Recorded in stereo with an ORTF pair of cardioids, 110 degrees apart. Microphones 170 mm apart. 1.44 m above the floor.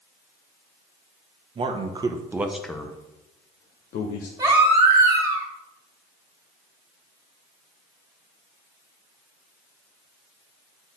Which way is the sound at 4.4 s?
20° right.